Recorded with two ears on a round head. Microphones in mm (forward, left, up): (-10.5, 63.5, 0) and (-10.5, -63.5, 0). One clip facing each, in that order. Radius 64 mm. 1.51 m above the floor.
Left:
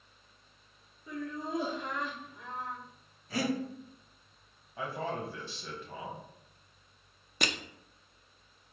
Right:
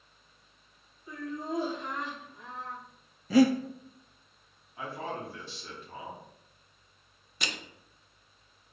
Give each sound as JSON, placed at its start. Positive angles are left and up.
{"t": 1.1, "sound": "laughter", "side_deg": 55, "distance_m": 2.5}
{"t": 3.3, "sound": "breathing", "side_deg": -70, "distance_m": 0.7}
{"t": 4.8, "sound": "a man speaking", "side_deg": 55, "distance_m": 2.0}
{"t": 7.4, "sound": "crushing", "side_deg": 45, "distance_m": 0.5}